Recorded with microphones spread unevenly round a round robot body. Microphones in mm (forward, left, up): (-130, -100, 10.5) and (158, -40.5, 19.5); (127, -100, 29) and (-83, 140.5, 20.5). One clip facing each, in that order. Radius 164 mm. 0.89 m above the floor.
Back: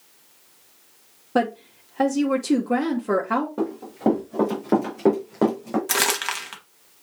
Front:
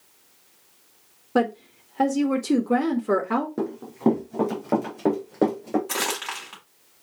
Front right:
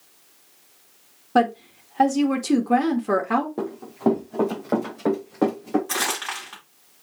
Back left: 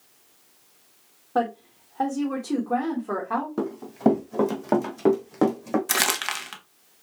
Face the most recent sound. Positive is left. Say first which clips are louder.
# back 3 dB, even
turn(degrees=140)